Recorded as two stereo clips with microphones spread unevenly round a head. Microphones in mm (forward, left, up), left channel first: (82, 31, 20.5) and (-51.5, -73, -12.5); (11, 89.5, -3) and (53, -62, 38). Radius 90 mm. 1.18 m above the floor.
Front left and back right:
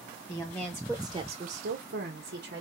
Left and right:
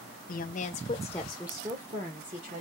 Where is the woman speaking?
110° left, 1.1 m; by 2.6 s 125° right, 1.7 m.